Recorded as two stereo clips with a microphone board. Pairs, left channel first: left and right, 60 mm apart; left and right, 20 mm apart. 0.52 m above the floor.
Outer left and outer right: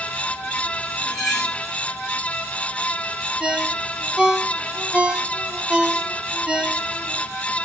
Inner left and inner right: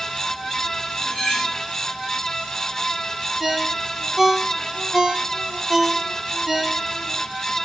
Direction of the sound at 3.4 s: 15° right (ahead or behind).